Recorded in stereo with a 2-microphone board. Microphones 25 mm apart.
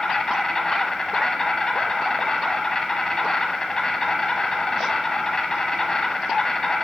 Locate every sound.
0.0 s an insect: 30° left (ahead or behind), 1.2 m